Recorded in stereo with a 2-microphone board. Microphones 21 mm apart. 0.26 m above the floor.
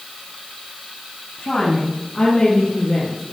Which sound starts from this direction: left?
A woman speaking, at 1.4 s.